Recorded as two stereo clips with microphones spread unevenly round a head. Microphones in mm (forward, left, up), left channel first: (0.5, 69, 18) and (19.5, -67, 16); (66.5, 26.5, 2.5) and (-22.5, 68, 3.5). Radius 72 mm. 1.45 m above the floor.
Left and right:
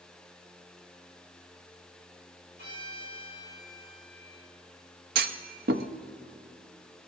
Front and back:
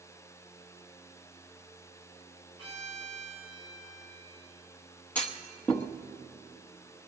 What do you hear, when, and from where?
2.6 s a violin: 105° right, 7 m
5.2 s a clunk: 105° right, 0.7 m